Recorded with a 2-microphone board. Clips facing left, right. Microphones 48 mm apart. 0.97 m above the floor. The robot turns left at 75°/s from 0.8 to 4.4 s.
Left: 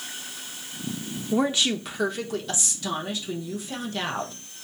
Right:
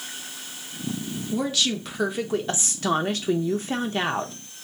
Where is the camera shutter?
No camera shutter in this recording.